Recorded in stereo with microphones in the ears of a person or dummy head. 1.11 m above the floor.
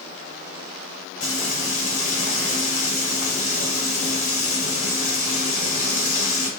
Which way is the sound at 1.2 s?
40° left (ahead or behind).